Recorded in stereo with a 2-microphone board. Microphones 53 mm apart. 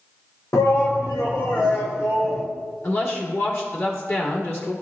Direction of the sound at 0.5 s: 70° left (ahead or behind).